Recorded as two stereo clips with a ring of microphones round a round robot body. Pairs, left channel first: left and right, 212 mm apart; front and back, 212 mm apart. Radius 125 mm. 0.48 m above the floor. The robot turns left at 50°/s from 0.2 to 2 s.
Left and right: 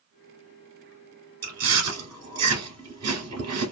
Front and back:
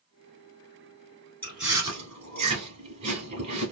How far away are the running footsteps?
I don't hear running footsteps.